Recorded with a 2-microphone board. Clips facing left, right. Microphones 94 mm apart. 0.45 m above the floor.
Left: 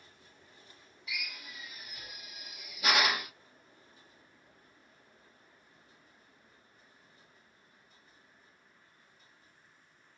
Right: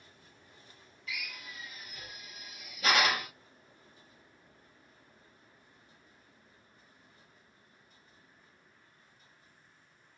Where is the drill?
15° left (ahead or behind), 1.2 m.